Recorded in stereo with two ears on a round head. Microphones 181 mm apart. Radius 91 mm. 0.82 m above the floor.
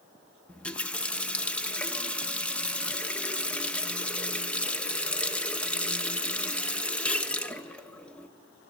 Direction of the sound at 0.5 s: 5° left (ahead or behind).